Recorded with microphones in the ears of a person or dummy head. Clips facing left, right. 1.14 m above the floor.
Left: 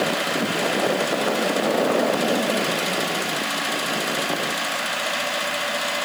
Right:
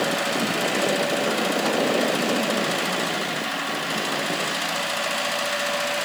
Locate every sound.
Only background noise.